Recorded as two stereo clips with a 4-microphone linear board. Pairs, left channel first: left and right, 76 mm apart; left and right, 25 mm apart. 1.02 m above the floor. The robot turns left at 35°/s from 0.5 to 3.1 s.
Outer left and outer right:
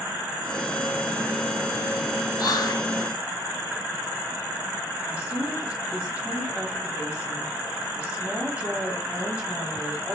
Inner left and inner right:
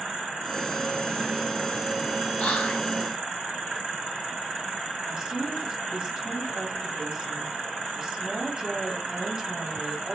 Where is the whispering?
55° left (ahead or behind), 1.0 m.